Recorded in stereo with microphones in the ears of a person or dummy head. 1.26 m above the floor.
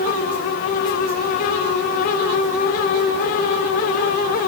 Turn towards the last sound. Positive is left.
No sound to turn to.